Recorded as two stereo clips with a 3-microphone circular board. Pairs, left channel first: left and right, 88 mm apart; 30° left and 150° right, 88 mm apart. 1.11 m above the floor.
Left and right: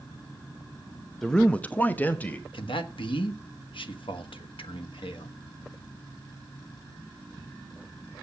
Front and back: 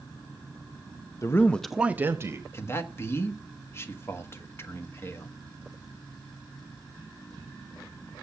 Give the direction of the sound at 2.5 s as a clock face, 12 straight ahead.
9 o'clock.